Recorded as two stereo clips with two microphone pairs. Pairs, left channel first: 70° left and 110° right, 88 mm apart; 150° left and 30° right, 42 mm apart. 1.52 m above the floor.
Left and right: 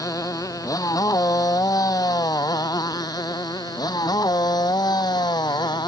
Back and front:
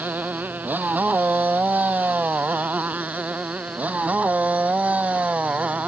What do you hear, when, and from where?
0.0 s a motorcycle: 20° left; by 5.9 s 30° left